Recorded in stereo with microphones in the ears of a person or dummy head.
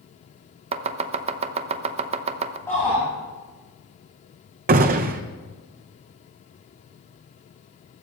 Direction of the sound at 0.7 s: 35° right (ahead or behind).